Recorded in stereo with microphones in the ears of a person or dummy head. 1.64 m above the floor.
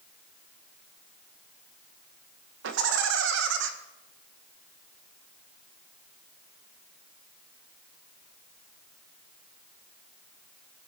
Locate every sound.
2.6 s laughter: 70° right (ahead or behind), 1.8 m